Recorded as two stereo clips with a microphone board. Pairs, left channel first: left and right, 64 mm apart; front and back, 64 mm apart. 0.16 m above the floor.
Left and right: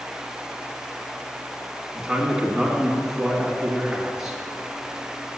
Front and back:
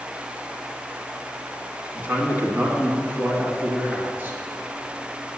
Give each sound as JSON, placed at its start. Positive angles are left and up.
{"t": 1.9, "sound": "a man speaking", "azimuth_deg": -170, "distance_m": 1.9}